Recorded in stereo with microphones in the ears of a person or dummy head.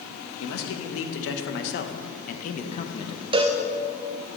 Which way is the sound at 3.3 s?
30° right (ahead or behind).